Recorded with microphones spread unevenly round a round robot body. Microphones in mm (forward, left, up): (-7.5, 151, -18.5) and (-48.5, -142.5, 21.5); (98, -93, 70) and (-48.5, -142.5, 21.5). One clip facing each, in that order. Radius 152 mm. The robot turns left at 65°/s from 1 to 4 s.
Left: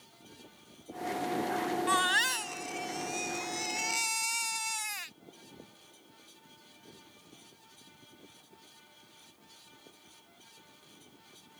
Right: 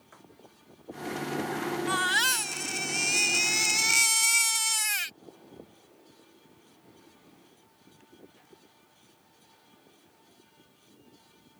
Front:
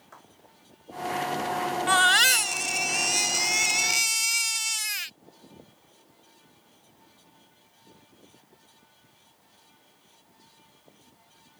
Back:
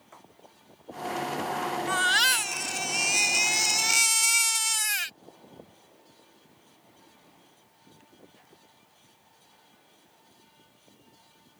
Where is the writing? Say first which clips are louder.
Right 5 dB, even; 80° right.